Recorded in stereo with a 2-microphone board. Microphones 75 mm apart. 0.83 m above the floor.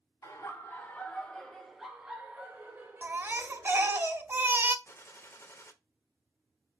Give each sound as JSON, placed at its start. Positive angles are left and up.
{"t": 0.2, "sound": "laughter", "side_deg": 40, "distance_m": 1.7}
{"t": 3.0, "sound": "a baby crying", "side_deg": -30, "distance_m": 0.6}
{"t": 4.8, "sound": "a gunshot", "side_deg": 40, "distance_m": 0.7}